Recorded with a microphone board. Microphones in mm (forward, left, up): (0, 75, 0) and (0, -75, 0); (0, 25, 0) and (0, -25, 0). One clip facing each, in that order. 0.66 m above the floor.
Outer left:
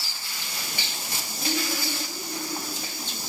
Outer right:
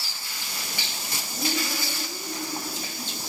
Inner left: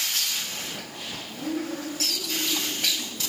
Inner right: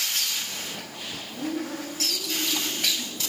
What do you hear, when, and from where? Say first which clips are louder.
1.4 s a woman speaking: even, even; 40° right (ahead or behind), 7 m